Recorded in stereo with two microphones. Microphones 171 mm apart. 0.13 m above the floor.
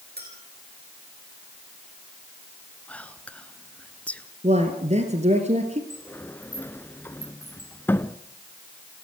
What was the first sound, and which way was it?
A clink, 80° right.